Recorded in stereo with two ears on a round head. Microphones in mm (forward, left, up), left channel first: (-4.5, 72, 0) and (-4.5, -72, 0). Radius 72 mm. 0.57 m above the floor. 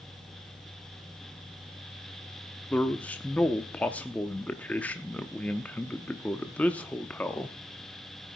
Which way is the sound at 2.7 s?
10° left (ahead or behind).